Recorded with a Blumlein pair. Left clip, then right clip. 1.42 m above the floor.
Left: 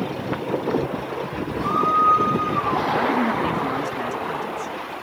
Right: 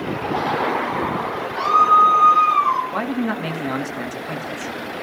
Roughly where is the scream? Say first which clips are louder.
Right 6 dB; ahead right.